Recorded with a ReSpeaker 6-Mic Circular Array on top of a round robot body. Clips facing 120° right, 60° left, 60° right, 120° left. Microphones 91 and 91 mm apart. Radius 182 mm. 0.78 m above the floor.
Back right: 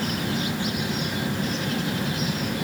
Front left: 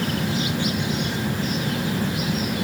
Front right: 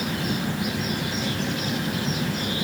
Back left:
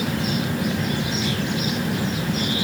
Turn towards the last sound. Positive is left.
No sound to turn to.